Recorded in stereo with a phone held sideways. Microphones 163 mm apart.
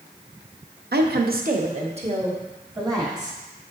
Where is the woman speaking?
80° right, 0.7 m; by 3.4 s 25° right (ahead or behind), 2.5 m.